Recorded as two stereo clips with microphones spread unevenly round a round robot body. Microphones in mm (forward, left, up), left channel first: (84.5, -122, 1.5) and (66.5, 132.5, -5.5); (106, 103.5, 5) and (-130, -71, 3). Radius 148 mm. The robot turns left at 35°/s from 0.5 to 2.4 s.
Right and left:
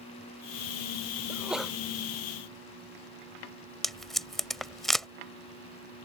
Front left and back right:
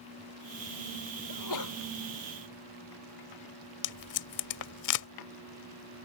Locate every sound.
1.3 s a sneeze: 15° left; by 1.8 s straight ahead
3.8 s tape being pulled: 5° left